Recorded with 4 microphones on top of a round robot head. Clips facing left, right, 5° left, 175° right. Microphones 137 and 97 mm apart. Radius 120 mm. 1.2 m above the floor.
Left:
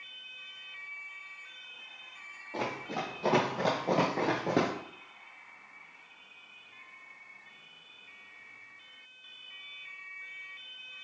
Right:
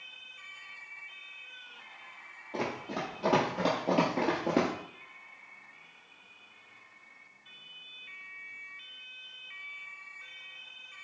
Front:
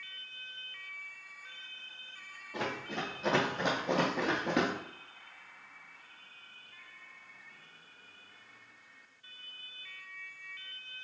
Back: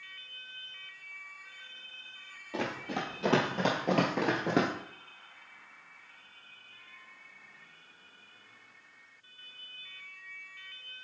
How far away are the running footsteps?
About 2.5 m.